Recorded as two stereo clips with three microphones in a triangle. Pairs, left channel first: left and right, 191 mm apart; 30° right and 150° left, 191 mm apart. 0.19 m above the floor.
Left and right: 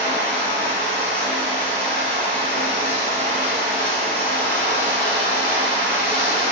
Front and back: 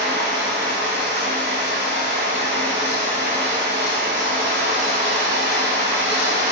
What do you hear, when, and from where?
0.0 s running water: 170° left, 1.2 m